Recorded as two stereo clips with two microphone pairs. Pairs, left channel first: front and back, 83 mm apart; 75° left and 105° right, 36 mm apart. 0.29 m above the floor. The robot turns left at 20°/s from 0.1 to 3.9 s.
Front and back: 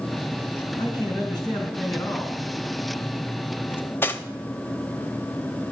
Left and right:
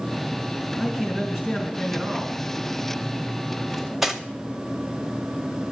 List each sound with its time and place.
0.8 s a man speaking: 20° right, 4 m; by 2.4 s 55° right, 4 m
3.7 s cutlery clinking: 20° right, 0.7 m